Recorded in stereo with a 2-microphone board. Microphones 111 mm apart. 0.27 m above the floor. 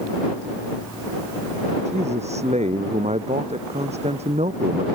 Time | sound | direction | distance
1.9 | a man speaking | 80° right | ?